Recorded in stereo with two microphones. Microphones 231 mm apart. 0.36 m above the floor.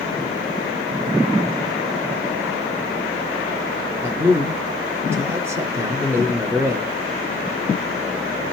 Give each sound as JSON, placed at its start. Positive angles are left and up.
{"t": 4.0, "sound": "a man speaking", "side_deg": -10, "distance_m": 0.8}